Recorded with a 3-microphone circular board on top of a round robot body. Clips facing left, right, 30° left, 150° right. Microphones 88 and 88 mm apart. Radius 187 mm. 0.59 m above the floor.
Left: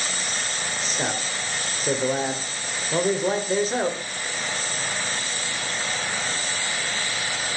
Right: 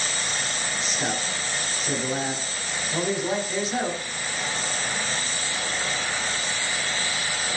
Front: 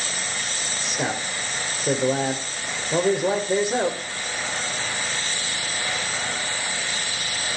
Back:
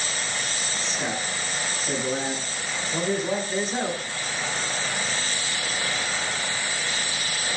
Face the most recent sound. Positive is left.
turn(degrees=40)